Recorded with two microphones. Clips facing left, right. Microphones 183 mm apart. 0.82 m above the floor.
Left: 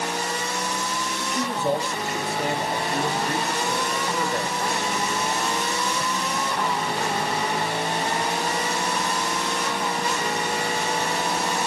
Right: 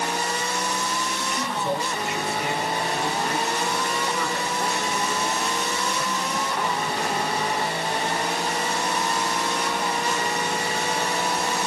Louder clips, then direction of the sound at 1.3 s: Left 4 dB; 40° left (ahead or behind).